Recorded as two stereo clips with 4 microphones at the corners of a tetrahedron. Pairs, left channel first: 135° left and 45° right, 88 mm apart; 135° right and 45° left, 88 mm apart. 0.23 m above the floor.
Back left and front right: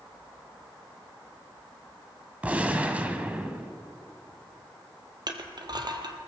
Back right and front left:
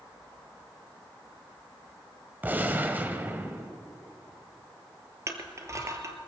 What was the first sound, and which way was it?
A gunshot, 5° left.